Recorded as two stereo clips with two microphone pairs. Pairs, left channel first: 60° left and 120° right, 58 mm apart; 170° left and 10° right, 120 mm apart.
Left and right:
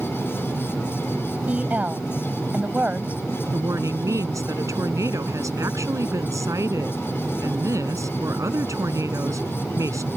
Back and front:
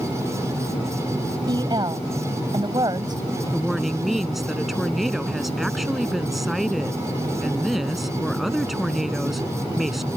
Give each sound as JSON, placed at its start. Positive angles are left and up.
{"t": 1.5, "sound": "a woman speaking", "azimuth_deg": -60}
{"t": 3.5, "sound": "a woman speaking", "azimuth_deg": -100}